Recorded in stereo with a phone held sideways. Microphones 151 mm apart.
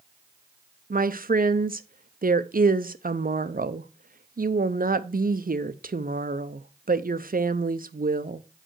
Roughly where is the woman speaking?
Right.